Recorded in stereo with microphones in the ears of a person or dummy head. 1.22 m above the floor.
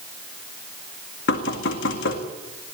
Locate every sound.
1.3 s knocking: 60° left (ahead or behind), 2.0 m